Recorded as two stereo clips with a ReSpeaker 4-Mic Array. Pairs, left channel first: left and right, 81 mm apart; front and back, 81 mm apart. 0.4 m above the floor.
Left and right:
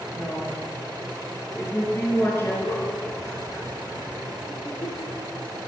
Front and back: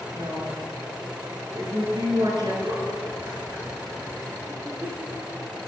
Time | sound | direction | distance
0.1 | a woman speaking | 150° left | 5 m
2.6 | a giggle | 125° left | 5.5 m